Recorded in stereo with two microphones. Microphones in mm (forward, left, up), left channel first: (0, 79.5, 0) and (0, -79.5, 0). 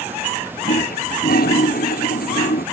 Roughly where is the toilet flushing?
Left.